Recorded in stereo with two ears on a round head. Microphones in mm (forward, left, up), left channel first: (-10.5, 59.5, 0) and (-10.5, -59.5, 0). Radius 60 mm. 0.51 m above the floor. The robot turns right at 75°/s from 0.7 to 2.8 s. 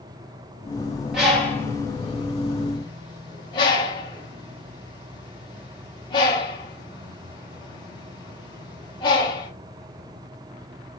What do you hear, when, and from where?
1.1 s a bird: 5° right (ahead or behind), 1.0 m; by 9.5 s 35° left (ahead or behind), 1.0 m